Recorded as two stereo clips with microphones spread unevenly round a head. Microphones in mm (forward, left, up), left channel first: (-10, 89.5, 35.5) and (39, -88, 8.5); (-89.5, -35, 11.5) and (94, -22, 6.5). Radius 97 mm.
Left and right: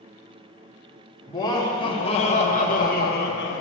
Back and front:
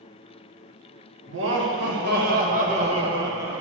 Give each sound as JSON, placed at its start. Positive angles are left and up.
{"t": 1.3, "sound": "laughter", "azimuth_deg": 35, "distance_m": 1.6}